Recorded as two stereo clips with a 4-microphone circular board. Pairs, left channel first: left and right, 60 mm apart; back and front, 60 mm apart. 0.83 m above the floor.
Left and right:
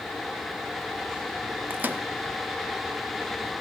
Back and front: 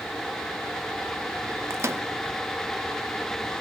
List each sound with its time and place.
1.7 s a microwave: 35° right, 0.7 m